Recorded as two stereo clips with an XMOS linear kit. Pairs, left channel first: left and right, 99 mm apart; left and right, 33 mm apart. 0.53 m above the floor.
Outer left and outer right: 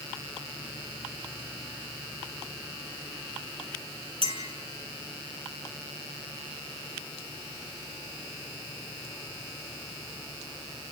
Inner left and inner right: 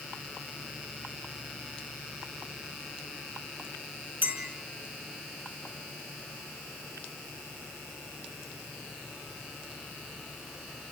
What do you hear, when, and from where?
4.2 s a clink: 70° right (ahead or behind), 5 m